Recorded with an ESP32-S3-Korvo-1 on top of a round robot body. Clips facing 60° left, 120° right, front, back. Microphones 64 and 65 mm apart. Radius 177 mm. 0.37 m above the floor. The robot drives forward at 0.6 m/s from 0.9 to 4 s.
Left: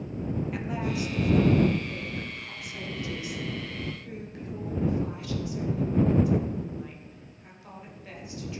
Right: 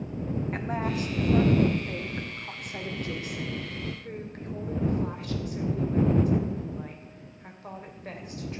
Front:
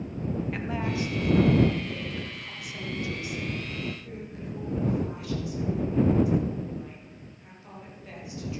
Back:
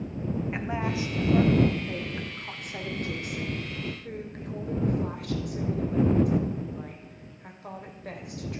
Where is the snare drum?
No snare drum in this recording.